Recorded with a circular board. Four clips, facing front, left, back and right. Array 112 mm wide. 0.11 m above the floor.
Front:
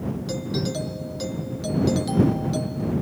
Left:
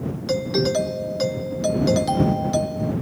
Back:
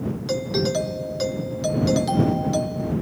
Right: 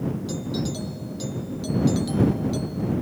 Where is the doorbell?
115° left.